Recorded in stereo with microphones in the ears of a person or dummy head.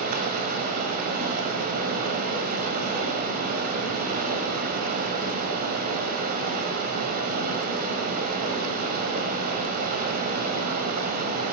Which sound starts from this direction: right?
Running water, at 0.0 s.